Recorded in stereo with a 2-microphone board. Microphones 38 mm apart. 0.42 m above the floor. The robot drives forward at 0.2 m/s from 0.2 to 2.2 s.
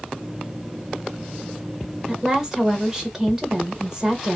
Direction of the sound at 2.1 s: 15° right (ahead or behind).